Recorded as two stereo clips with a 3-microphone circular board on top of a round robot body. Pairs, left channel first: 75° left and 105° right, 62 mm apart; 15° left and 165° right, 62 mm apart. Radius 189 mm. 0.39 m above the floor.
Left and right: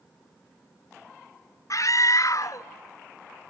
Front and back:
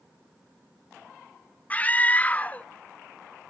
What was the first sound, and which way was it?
A scream, 80° left.